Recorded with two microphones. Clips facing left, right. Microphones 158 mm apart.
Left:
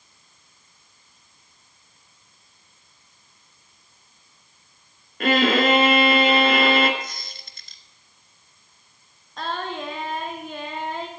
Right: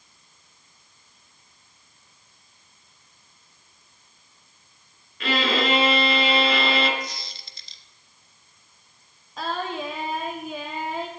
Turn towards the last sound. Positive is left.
turn(degrees=-5)  # may be behind; listen again after turning